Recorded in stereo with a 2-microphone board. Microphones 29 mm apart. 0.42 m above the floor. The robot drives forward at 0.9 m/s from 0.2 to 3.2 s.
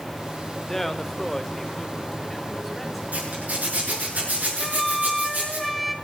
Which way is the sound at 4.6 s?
Centre (ahead or behind).